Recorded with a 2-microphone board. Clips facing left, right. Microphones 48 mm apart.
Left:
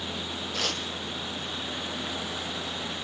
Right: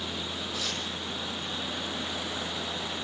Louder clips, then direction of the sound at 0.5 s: Left 5 dB; 60° left (ahead or behind).